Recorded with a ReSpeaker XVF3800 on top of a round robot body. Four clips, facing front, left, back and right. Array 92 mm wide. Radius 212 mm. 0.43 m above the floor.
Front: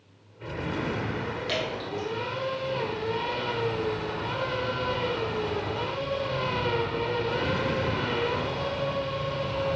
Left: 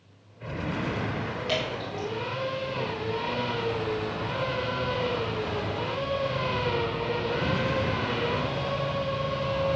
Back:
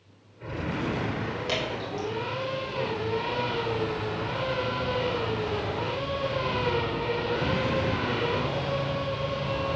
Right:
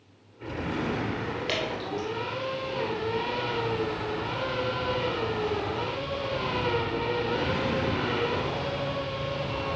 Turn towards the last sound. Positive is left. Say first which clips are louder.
# left 1 dB, even
turn(degrees=-110)